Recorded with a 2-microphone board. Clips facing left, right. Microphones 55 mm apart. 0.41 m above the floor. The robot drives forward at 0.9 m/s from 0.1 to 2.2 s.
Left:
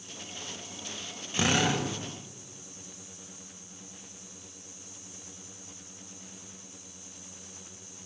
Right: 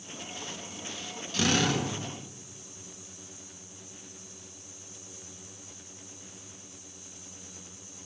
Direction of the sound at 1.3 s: 25° left (ahead or behind).